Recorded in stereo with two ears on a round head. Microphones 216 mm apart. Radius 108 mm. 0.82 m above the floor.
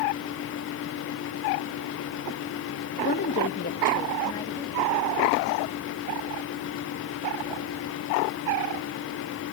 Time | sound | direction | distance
3.0 | a woman speaking | 35° left (ahead or behind) | 1.2 m